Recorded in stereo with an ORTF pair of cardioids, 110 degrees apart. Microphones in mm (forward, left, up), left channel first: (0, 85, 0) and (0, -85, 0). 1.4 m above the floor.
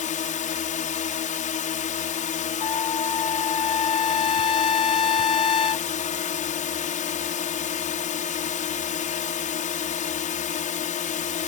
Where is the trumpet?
30° left.